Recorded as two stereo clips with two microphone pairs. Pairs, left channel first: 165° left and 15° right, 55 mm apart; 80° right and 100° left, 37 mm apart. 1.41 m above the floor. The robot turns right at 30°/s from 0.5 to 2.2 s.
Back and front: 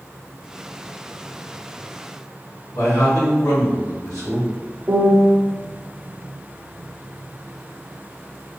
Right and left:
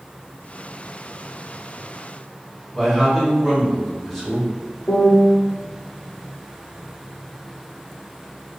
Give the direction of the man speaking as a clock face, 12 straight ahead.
6 o'clock.